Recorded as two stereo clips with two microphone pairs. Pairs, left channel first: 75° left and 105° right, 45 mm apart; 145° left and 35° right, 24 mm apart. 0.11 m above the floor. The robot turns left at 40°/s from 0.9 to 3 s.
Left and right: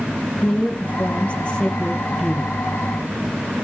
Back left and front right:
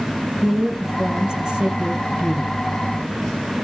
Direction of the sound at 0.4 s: 35° left.